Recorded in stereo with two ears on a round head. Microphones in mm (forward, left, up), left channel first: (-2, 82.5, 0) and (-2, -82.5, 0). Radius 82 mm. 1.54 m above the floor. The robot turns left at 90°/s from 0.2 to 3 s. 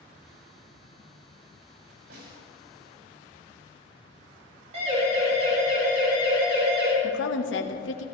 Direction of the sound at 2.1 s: 80° right.